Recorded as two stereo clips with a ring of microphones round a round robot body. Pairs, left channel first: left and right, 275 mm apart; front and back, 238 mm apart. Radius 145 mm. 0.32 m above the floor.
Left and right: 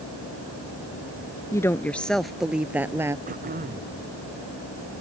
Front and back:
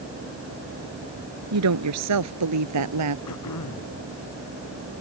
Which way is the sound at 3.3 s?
30° right.